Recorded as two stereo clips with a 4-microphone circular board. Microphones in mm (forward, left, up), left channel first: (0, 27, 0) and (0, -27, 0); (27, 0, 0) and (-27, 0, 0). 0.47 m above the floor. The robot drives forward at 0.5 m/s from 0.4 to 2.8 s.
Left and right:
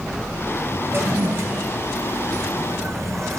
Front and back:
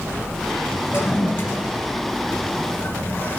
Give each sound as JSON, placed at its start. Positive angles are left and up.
{"t": 0.9, "sound": "a toilet flushing", "azimuth_deg": -45, "distance_m": 3.0}